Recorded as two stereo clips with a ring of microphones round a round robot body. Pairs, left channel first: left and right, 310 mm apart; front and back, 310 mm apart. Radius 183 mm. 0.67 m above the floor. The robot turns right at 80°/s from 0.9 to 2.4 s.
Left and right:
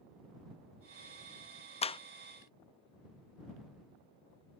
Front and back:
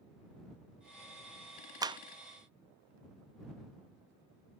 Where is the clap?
120° left; by 2.0 s 135° left.